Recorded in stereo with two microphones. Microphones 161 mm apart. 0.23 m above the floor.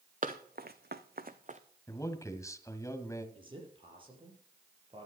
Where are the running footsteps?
55° right (ahead or behind), 1.3 m; by 1.6 s 45° right (ahead or behind), 1.2 m.